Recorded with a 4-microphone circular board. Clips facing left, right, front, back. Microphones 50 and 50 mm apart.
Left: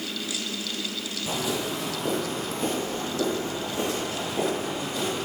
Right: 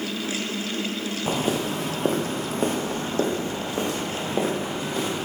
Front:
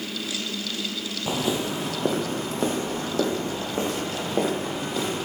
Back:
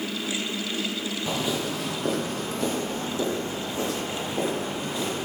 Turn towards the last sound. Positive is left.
turn(degrees=-40)